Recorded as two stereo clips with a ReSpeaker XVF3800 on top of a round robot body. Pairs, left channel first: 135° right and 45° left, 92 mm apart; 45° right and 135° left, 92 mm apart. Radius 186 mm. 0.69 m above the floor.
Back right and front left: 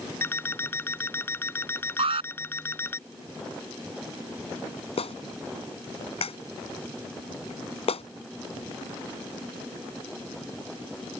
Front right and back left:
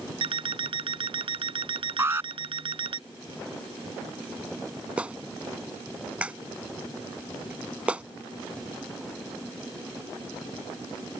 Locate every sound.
0.2 s an alarm clock: 160° left
2.0 s an alarm: 70° left
5.0 s a clap: 145° right